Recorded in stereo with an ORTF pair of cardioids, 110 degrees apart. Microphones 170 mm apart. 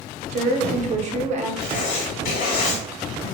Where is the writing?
60° left, 1.2 m.